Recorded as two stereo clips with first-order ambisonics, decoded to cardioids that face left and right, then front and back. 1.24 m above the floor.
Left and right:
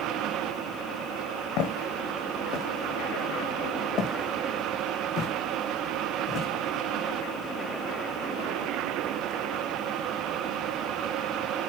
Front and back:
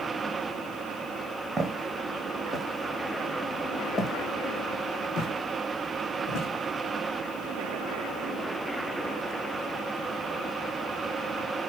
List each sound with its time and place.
1.6 s footsteps: 105° left, 2.5 m; by 6.5 s 35° left, 3 m